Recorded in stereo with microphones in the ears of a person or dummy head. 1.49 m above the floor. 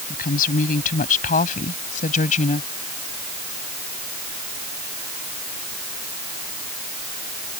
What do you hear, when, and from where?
0.1 s a woman speaking: 50° left (ahead or behind); by 2.6 s 45° left (ahead or behind)